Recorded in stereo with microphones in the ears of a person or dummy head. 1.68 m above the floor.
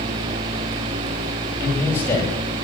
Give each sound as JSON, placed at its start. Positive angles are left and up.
{"t": 1.6, "sound": "a man speaking", "side_deg": 10, "distance_m": 8.5}